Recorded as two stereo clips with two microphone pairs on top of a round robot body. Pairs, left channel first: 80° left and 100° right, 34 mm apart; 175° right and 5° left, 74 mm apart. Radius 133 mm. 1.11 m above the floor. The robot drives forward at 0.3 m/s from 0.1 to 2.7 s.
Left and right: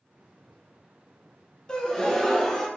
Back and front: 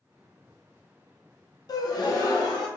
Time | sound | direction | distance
1.7 | a gasp | 155° left | 0.5 m